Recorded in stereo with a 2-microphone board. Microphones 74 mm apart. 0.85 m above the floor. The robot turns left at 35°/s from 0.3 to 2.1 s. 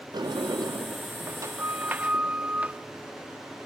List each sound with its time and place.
0.1 s a sliding door: 100° right, 0.5 m; by 2.8 s 160° right, 0.5 m